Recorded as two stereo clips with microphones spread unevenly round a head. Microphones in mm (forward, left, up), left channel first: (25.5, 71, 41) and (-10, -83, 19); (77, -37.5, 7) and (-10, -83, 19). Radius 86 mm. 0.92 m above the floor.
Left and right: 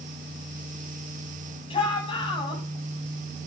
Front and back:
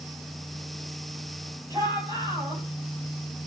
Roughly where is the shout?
Behind left.